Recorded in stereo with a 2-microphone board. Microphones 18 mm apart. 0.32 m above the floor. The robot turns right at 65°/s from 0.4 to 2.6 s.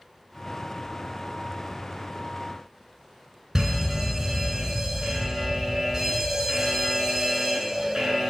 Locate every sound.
3.5 s a fire alarm: 20° right (ahead or behind), 6.5 m